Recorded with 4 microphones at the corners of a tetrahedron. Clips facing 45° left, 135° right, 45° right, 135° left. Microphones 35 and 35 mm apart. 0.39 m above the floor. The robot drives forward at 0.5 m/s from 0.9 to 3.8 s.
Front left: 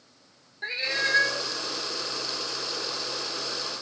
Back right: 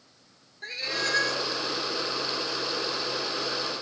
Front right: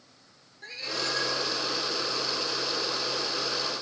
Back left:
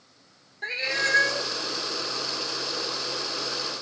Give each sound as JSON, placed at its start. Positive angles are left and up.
{"t": 0.6, "sound": "a cat meowing", "azimuth_deg": 105, "distance_m": 0.6}